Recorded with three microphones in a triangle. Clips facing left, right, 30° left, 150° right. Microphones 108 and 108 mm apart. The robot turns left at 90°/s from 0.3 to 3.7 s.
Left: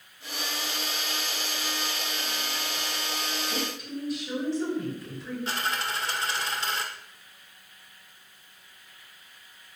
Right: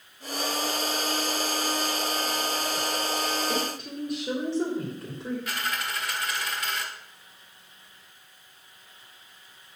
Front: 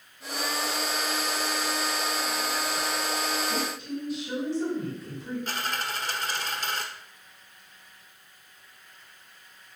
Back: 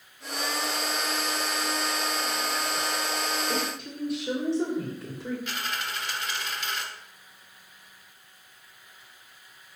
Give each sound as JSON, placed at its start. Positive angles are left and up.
{"t": 3.5, "sound": "a woman speaking", "azimuth_deg": -105, "distance_m": 3.5}
{"t": 5.5, "sound": "a dropped coin", "azimuth_deg": 50, "distance_m": 1.3}